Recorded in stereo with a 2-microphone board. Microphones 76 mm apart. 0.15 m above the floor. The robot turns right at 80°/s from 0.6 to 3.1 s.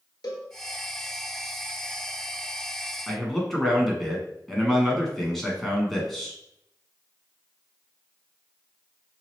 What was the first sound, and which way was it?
A cowbell, 60° left (ahead or behind).